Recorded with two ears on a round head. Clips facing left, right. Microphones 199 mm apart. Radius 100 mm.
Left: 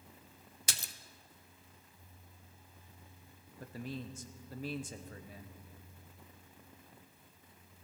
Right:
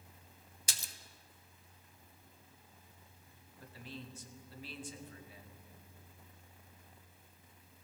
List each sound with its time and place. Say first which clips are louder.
0.7 s a splash: left 4 dB; 50° left (ahead or behind), 0.6 m
3.6 s a man speaking: left 7 dB; 40° left (ahead or behind), 1.0 m